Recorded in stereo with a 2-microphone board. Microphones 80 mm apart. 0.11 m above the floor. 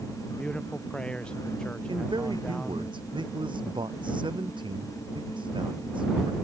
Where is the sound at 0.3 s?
10° left (ahead or behind).